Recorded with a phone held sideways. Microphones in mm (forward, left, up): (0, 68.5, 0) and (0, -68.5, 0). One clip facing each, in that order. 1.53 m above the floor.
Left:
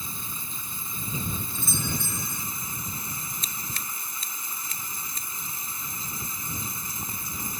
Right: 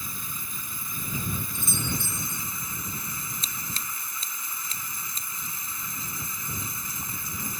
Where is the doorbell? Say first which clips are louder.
Even; 20° right (ahead or behind).